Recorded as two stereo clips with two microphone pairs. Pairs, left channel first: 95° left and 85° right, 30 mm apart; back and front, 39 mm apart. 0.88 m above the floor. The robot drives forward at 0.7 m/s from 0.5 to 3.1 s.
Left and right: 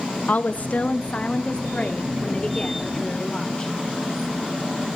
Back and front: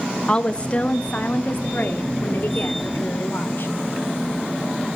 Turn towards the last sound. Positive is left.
turn(degrees=160)